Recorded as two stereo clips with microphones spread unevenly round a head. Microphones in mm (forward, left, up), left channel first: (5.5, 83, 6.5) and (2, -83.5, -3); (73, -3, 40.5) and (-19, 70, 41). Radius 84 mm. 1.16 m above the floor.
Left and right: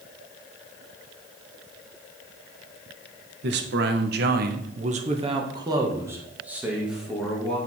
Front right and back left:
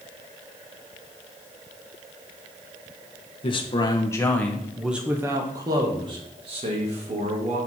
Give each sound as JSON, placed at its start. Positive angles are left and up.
{"t": 3.4, "sound": "a man speaking", "azimuth_deg": -85, "distance_m": 1.0}